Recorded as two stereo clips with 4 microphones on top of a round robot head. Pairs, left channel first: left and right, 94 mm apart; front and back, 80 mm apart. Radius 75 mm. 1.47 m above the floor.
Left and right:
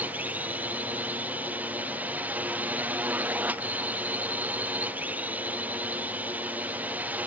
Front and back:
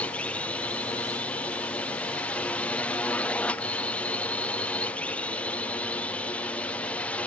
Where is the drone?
45° right.